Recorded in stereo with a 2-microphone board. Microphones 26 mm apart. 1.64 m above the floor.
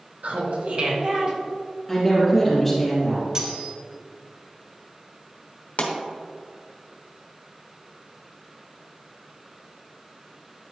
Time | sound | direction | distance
0.2 | laughter | 75° right (ahead or behind) | 1.3 m
1.9 | a woman speaking | 15° left (ahead or behind) | 2.5 m
3.4 | cutlery clinking | 25° right (ahead or behind) | 2.0 m
5.8 | a pop | 65° left (ahead or behind) | 1.1 m